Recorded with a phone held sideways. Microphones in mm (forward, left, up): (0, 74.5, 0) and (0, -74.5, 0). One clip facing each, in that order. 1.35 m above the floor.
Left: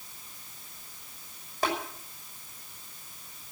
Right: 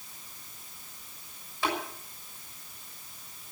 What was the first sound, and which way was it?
Tapping, 45° left (ahead or behind).